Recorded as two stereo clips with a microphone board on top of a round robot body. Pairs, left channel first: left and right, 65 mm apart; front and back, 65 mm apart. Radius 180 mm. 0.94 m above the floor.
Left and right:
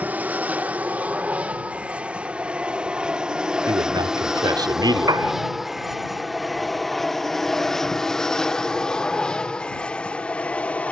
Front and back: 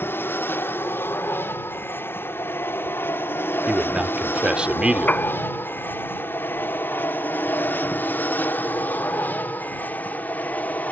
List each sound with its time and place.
0.0 s an aircraft: 40° right; by 10.9 s 40° left
3.7 s a man speaking: 100° right
5.1 s a piano: 70° right